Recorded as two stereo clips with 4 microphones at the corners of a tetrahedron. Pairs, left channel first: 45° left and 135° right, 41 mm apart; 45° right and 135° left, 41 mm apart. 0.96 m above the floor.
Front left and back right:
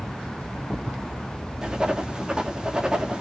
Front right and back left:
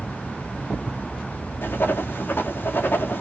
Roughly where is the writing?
Ahead right.